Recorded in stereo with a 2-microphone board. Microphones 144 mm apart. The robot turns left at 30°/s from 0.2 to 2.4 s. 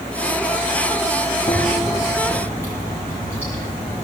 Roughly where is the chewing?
Left.